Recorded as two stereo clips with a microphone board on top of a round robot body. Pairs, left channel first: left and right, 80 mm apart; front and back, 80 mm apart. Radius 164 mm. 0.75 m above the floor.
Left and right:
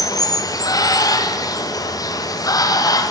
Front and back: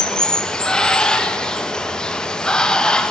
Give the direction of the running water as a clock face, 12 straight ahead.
9 o'clock.